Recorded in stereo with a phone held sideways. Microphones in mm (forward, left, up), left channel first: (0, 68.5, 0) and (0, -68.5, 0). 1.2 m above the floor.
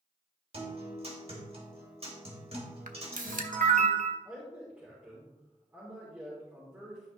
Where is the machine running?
No machine running in this recording.